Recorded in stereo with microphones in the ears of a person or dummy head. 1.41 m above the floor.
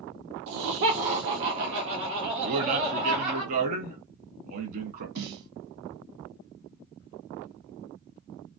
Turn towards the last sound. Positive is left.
turn(degrees=-55)  # may be behind; listen again after turning